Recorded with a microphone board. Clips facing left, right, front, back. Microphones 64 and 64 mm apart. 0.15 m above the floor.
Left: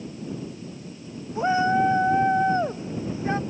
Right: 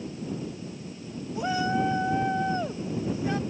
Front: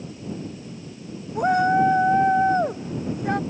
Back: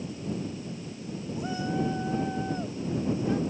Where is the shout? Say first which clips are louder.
Left 6 dB, front 13 dB; 30° left.